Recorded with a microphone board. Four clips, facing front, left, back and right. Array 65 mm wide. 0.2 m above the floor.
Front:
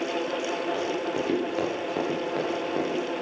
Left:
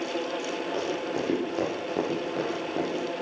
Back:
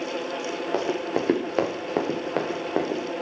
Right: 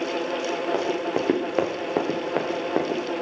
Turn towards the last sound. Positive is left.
turn(degrees=-115)